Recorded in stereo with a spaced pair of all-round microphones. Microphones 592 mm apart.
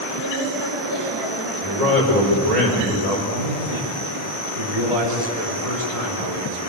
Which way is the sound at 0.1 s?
55° right (ahead or behind).